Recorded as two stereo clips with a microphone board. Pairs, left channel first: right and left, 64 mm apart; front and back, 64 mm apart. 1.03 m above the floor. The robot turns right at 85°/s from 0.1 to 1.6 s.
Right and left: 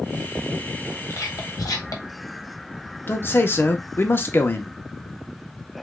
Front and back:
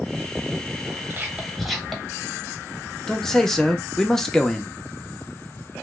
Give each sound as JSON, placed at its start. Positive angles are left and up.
{"t": 1.1, "sound": "whispering", "azimuth_deg": -130, "distance_m": 0.9}
{"t": 3.1, "sound": "a man speaking", "azimuth_deg": -80, "distance_m": 0.6}